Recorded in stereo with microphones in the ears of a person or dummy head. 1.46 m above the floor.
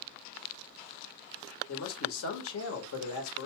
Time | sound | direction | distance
1.7 | a man speaking | 90° left | 1.8 m